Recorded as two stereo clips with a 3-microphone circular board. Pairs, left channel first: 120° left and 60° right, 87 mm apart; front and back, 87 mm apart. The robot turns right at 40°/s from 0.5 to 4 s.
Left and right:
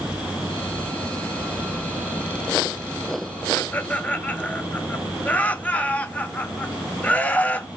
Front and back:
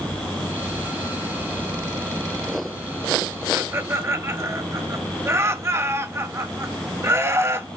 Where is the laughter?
155° left, 0.9 m; by 7.7 s 175° left, 0.9 m.